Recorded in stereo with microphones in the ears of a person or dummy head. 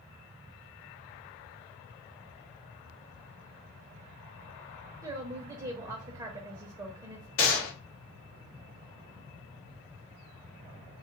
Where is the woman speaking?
20° right (ahead or behind), 0.6 m.